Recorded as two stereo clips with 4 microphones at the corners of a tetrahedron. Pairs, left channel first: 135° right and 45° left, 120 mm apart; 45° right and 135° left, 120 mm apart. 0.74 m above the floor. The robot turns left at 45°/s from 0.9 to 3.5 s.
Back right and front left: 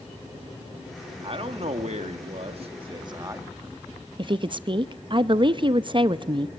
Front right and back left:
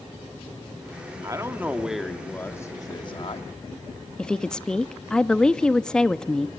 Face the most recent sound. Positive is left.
turn(degrees=35)